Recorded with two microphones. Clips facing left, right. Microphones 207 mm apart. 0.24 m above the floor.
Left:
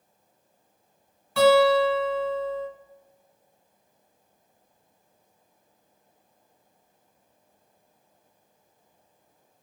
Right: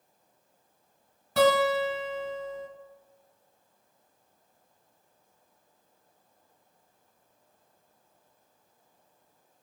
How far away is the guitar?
About 1.3 m.